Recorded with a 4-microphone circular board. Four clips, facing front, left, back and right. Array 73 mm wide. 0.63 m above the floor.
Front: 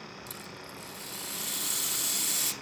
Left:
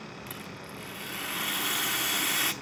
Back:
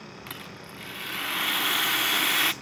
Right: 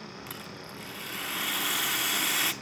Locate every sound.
0.3 s a rattle: straight behind, 0.9 m